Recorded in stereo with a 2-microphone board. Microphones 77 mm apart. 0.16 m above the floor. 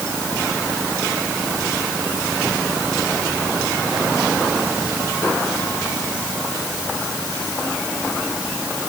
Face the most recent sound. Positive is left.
No sound to turn to.